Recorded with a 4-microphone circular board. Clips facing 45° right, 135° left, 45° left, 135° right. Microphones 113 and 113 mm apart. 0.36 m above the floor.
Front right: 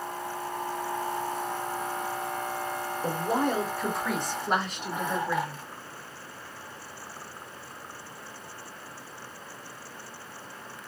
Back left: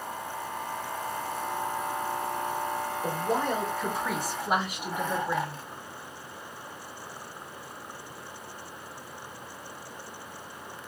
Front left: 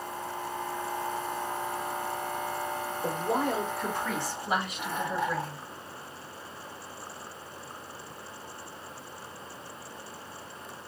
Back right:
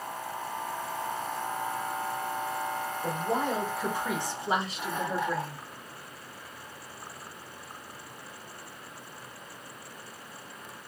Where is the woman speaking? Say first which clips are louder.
Front right 2 dB, front left 1 dB; straight ahead, 1.0 m; by 5.6 s 160° right, 1.4 m.